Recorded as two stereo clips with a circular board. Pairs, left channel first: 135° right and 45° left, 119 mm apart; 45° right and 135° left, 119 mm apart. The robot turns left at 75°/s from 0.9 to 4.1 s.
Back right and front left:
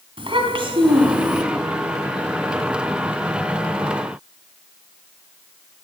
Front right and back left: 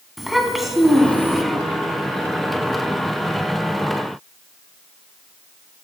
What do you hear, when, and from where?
0.2 s a child speaking: 45° left, 1.7 m; by 1.4 s 5° left, 1.7 m